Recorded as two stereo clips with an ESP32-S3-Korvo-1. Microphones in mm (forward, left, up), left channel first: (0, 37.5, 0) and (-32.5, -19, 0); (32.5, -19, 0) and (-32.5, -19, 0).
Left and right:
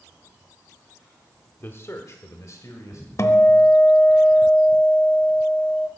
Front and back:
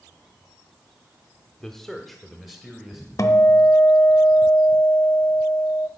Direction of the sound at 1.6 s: 75° left.